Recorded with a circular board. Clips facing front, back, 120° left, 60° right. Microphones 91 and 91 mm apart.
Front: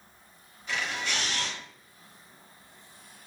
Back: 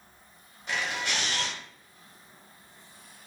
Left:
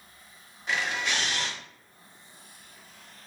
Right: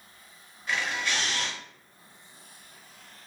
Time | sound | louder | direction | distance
0.7 | a camera shutter | back 1 dB, left 1 dB | 170° right | 1.8 m